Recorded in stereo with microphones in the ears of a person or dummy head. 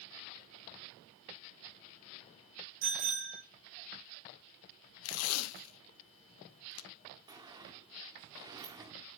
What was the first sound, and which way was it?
A bicycle bell, 55° right (ahead or behind).